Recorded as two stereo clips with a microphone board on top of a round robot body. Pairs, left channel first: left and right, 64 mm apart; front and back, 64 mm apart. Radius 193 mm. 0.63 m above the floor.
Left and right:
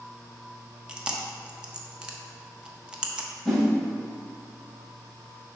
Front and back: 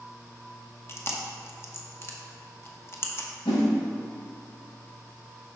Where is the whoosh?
Straight ahead, 1.5 m.